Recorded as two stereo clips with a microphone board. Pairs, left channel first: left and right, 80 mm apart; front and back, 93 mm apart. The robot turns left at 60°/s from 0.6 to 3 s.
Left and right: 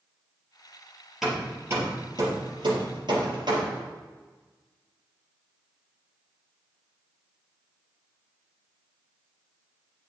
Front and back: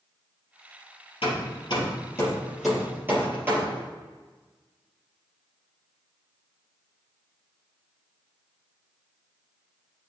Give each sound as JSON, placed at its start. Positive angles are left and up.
{"t": 1.2, "sound": "hammering", "azimuth_deg": -5, "distance_m": 3.0}